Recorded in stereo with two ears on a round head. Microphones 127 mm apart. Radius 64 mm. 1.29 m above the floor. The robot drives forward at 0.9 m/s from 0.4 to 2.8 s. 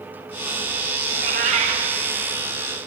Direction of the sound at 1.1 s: 60° right (ahead or behind).